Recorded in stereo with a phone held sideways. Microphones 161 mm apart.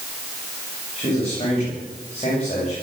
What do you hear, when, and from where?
1.0 s a man speaking: 35° left (ahead or behind), 9 m